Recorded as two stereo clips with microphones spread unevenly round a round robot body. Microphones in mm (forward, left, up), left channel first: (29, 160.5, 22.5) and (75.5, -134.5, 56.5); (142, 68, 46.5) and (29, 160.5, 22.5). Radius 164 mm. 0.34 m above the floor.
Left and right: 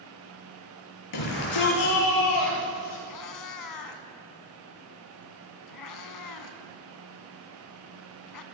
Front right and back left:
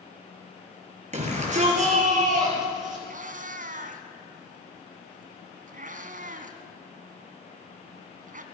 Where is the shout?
105° left, 8 m; by 3.0 s 110° left, 10 m.